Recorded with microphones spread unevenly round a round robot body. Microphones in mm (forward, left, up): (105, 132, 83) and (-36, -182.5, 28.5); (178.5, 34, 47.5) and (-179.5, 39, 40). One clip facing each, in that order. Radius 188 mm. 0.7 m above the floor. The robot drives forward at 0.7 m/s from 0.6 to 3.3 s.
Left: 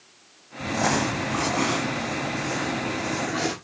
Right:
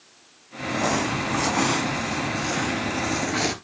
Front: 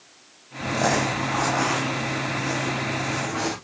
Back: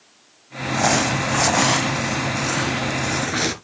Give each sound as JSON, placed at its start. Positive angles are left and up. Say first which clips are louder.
{"t": 0.6, "sound": "crumpling", "louder": "even, back 2 dB", "azimuth_deg": 90, "distance_m": 0.5}